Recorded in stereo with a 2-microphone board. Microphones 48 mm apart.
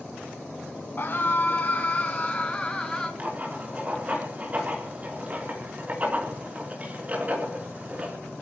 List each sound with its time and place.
1.0 s a scream: 45° left (ahead or behind), 1.8 m; by 3.1 s 10° left (ahead or behind), 2.5 m
3.2 s writing: 30° right (ahead or behind), 3.5 m